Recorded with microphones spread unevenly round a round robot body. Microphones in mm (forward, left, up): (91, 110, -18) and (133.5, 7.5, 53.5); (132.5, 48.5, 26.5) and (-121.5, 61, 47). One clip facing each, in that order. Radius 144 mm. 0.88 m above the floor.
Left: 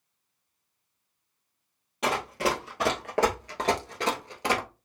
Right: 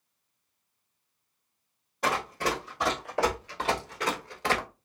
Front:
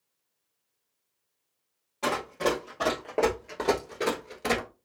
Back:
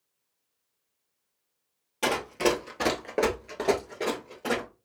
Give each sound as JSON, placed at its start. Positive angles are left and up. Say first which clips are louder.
{"t": 2.0, "sound": "running footsteps", "louder": "left 2 dB, back 2 dB", "azimuth_deg": 160, "distance_m": 1.3}